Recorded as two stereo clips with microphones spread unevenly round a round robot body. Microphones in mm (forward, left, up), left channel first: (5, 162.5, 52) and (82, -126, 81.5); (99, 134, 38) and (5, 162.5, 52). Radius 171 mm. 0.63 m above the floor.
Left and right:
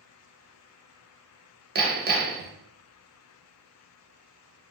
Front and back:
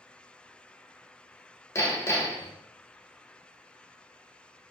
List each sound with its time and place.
1.8 s hammering: 30° right, 1.0 m